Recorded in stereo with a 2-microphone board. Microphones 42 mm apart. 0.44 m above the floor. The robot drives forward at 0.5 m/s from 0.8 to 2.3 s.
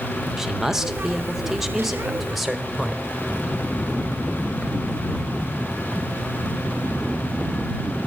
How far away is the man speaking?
About 1.0 m.